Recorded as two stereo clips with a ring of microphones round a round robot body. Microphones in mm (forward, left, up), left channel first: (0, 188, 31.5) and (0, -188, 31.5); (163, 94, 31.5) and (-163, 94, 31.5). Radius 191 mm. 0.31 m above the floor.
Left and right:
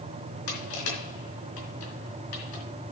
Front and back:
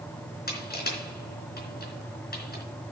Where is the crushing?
60° left, 3.5 m.